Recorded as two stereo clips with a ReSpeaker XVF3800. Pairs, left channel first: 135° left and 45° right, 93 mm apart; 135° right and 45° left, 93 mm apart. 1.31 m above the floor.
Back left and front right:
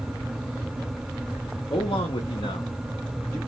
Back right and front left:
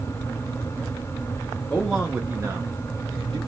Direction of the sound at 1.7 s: 150° left.